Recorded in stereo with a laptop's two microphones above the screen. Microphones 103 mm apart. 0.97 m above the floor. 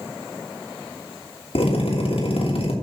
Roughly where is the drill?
Left.